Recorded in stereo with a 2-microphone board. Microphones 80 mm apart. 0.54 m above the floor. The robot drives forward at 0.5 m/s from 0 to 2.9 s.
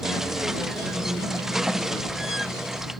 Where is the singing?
I don't hear singing.